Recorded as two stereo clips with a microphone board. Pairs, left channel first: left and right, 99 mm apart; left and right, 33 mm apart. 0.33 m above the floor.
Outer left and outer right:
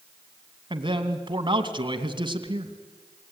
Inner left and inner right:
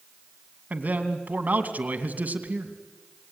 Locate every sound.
0.7 s a man speaking: 50° right (ahead or behind), 2.5 m